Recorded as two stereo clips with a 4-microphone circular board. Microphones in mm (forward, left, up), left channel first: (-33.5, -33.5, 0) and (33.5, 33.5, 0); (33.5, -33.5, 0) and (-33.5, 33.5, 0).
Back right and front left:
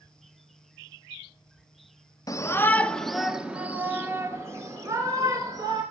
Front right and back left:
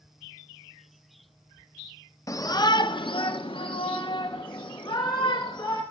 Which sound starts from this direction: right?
A shout, at 2.3 s.